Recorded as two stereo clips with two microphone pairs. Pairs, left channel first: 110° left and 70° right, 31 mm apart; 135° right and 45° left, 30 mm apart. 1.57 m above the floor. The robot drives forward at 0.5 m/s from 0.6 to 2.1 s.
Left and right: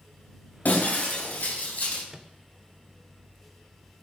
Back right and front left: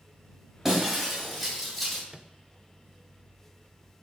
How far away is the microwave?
About 0.6 m.